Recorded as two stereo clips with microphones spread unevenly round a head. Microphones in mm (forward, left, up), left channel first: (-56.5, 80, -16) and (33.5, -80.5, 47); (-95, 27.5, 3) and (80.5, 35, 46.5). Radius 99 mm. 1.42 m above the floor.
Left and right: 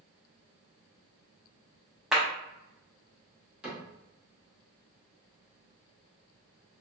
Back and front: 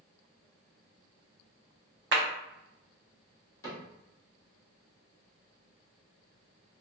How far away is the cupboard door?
About 0.9 m.